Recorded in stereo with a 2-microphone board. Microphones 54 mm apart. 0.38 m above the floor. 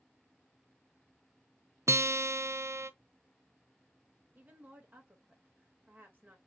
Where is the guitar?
60° right (ahead or behind), 0.6 m.